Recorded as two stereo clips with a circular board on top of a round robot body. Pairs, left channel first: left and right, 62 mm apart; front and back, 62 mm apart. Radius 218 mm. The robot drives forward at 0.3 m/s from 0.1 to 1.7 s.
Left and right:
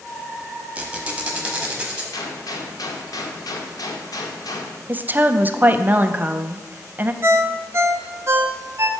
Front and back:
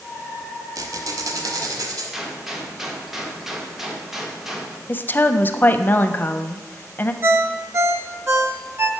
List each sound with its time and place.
0.8 s a squeak: 160° right, 0.9 m; by 2.0 s 165° right, 1.2 m
2.1 s a gunshot: 95° left, 0.8 m
4.9 s a woman speaking: 45° right, 0.5 m
7.2 s a ringtone: 135° right, 0.7 m